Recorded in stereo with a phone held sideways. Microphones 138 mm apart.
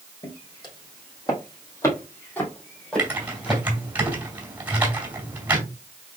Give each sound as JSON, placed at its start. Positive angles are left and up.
{"t": 0.2, "sound": "footsteps", "side_deg": 35, "distance_m": 2.5}
{"t": 3.0, "sound": "typing on a keyboard", "side_deg": -15, "distance_m": 2.5}